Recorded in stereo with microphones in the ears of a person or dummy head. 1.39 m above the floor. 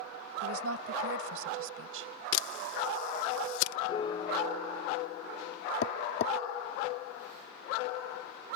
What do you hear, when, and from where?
0.4 s a woman speaking: 80° right; by 2.1 s 70° right (ahead or behind)
2.3 s a camera shutter: 85° left
3.9 s a piano: 35° left (ahead or behind)
5.8 s tapping: 40° left (ahead or behind)